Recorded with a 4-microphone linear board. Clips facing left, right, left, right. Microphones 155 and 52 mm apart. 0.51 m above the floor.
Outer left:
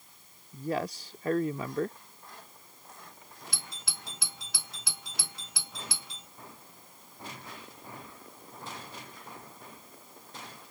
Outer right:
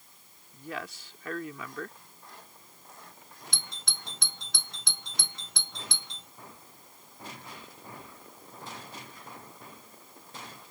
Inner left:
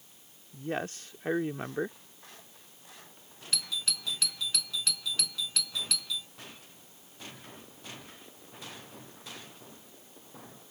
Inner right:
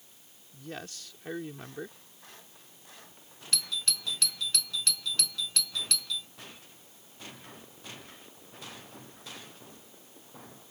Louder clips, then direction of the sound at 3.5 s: Even, inner right 1 dB; 5° left (ahead or behind).